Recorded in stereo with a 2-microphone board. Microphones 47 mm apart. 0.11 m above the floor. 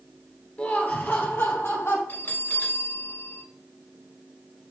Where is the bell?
50° left (ahead or behind), 3 m.